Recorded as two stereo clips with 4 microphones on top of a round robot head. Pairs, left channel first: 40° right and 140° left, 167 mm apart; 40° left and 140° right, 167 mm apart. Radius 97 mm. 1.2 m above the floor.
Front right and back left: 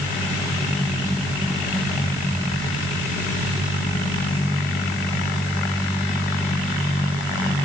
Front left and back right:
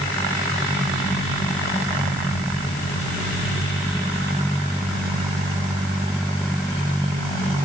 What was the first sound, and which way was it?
Only background noise.